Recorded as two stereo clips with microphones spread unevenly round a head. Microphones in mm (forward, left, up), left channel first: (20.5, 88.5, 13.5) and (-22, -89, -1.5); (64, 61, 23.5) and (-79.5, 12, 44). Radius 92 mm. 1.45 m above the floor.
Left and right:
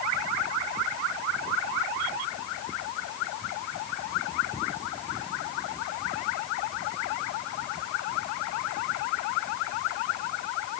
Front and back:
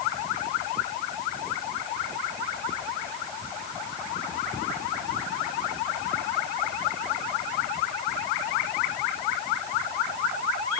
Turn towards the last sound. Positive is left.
No sound to turn to.